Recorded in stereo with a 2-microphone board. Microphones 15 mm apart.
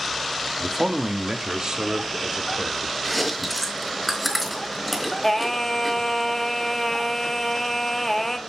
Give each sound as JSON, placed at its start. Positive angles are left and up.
{"t": 0.6, "sound": "a man speaking", "side_deg": -25, "distance_m": 1.2}
{"t": 3.0, "sound": "chewing", "side_deg": 0, "distance_m": 4.0}
{"t": 5.2, "sound": "singing", "side_deg": 25, "distance_m": 0.9}